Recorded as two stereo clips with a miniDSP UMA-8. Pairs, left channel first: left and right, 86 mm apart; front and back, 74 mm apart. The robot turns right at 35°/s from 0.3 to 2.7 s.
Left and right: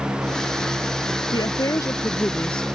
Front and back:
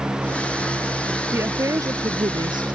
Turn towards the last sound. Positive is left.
turn(degrees=175)